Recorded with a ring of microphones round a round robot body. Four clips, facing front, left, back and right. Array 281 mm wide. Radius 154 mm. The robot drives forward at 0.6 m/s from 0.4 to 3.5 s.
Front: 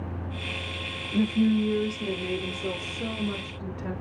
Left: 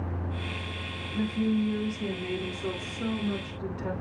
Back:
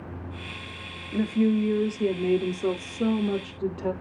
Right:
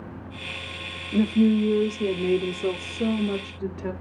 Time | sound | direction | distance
1.1 | a woman speaking | 110° right | 1.4 m